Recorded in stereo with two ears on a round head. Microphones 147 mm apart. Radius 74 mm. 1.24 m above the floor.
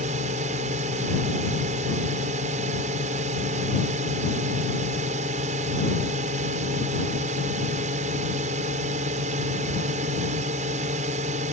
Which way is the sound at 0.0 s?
45° right (ahead or behind).